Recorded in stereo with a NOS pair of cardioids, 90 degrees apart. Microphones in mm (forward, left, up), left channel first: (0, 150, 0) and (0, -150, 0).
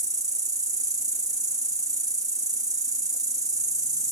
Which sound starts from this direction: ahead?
An insect, at 0.0 s.